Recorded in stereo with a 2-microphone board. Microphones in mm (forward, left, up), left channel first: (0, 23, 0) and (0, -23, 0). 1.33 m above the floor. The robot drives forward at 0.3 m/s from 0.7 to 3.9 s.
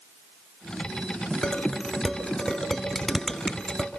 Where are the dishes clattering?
10° left (ahead or behind), 3 m; by 3.9 s 5° left (ahead or behind), 3.5 m.